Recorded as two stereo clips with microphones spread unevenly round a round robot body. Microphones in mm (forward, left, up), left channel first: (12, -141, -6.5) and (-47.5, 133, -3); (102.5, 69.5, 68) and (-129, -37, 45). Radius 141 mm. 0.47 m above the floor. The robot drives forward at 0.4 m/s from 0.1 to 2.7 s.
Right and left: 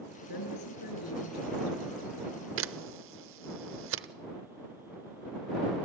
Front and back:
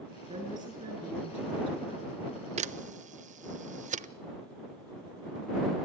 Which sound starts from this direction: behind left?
A camera shutter, at 2.6 s.